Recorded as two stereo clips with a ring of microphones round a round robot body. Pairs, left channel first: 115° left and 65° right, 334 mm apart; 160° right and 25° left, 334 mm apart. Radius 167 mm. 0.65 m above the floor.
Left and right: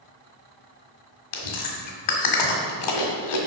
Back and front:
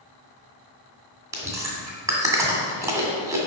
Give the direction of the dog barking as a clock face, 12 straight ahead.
I don't hear a dog barking.